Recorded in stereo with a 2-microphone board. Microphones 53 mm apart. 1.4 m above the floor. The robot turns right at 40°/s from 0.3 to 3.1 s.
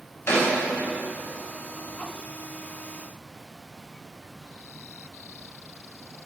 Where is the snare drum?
60° left (ahead or behind), 4.5 m; by 0.5 s 55° left (ahead or behind), 4.5 m.